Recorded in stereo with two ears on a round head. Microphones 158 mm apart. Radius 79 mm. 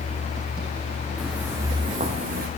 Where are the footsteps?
Centre (ahead or behind), 2.5 m; by 2.5 s 55° right (ahead or behind), 2 m.